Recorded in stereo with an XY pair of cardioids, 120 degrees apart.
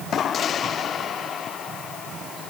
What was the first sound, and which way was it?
Only background noise.